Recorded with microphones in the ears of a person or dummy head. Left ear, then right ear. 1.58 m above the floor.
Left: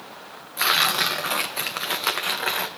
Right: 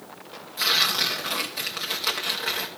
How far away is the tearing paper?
About 1.0 m.